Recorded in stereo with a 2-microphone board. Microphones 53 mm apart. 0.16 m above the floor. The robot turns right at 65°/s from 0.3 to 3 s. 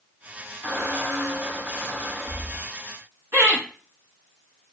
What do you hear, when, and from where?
0.6 s a squeak: 15° right (ahead or behind), 1.0 m; by 2.7 s 5° right (ahead or behind), 1.0 m
3.3 s laughter: 45° right (ahead or behind), 1.4 m